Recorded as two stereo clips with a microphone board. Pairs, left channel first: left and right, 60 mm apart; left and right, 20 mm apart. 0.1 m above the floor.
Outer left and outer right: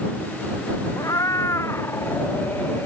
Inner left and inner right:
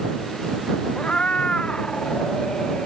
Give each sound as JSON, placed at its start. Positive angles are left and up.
{"t": 1.0, "sound": "a cat meowing", "side_deg": 65}